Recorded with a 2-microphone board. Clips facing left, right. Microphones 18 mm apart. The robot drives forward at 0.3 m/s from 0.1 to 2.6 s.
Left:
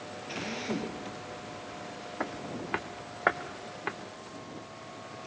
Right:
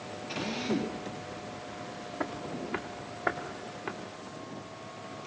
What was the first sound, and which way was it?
A drill, 5° left (ahead or behind).